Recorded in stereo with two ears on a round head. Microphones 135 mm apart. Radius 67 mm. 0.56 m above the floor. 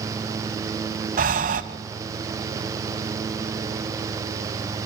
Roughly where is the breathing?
Right.